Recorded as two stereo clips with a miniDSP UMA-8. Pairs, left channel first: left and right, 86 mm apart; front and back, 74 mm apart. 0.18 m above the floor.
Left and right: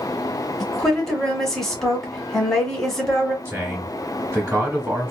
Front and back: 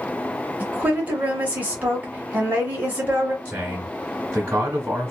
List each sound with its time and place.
0.6 s a woman speaking: 165° left, 1.1 m
3.5 s a man speaking: 125° right, 1.1 m